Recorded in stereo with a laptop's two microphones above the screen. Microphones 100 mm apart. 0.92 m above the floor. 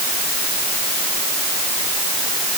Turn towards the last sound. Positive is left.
No sound to turn to.